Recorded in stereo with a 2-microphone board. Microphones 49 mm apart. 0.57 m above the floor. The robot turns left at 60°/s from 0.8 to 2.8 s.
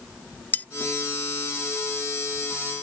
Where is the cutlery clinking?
40° left (ahead or behind).